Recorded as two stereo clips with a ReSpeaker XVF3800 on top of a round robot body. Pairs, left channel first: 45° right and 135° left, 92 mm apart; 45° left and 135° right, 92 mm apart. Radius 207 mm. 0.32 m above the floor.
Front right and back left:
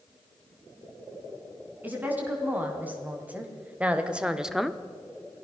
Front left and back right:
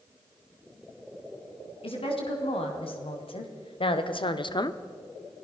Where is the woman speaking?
65° left, 5 m; by 4.8 s 40° left, 1.0 m.